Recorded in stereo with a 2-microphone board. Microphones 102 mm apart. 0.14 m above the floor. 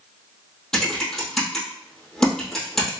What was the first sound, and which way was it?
Typing on a keyboard, 5° left (ahead or behind).